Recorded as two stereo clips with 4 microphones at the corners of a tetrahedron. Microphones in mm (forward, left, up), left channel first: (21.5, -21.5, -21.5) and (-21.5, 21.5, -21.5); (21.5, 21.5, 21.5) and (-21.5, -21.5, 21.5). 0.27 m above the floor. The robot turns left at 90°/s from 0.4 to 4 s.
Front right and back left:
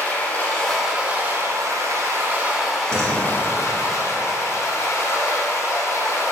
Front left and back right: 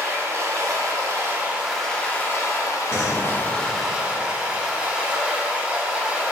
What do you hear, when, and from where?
0.0 s running water: 105° right, 0.7 m; by 6.3 s 70° right, 0.7 m
2.9 s a door slam: 155° left, 1.3 m; by 3.4 s 110° left, 1.3 m